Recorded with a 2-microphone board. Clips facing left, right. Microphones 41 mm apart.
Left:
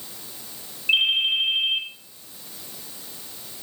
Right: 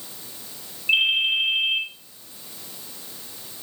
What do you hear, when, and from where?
0.9 s a ringtone: 5° left (ahead or behind), 9 m